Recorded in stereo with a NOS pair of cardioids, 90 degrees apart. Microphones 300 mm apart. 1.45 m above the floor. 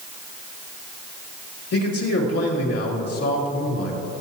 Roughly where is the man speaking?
Ahead left.